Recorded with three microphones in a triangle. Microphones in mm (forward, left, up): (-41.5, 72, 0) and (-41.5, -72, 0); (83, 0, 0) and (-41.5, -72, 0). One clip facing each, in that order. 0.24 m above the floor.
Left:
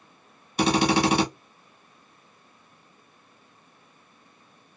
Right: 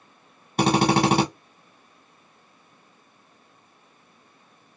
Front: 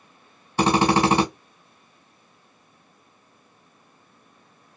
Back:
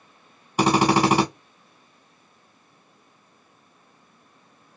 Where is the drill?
70° right, 1.4 m.